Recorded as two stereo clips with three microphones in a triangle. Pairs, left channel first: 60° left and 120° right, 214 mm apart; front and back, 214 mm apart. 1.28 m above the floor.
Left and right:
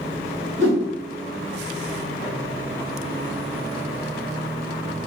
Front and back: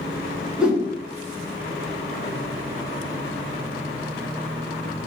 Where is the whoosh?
95° right, 1.6 m.